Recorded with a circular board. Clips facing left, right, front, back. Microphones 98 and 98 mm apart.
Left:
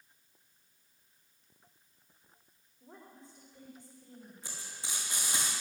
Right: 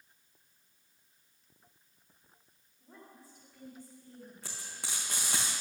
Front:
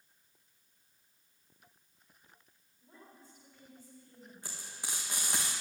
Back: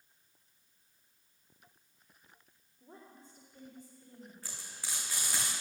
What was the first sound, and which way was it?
A woman speaking, 160° left.